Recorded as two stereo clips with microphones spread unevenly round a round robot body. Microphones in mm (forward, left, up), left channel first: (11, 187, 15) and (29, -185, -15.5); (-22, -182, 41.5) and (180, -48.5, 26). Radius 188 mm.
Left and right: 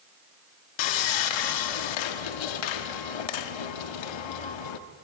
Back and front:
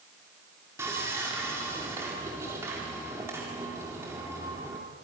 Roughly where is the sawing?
Behind left.